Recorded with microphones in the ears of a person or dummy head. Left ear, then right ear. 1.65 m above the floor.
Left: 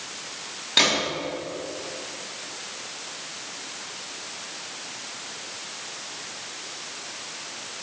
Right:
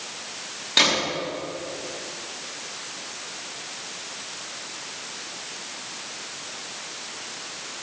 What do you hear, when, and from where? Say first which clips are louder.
0.8 s a gunshot: right 1 dB; 5° left (ahead or behind), 3 m